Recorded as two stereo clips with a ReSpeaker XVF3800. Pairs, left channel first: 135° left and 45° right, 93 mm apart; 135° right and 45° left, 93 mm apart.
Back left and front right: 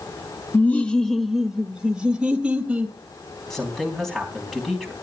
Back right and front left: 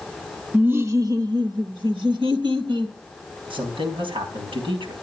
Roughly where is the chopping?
No chopping in this recording.